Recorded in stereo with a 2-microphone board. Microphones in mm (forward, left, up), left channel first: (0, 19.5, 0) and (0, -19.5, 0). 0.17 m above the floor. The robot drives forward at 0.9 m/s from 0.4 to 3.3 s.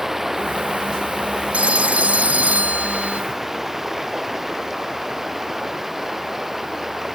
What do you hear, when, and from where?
0.0 s running water: 5° right (ahead or behind)
1.5 s a phone ringing: 40° right (ahead or behind); by 3.2 s 50° right (ahead or behind)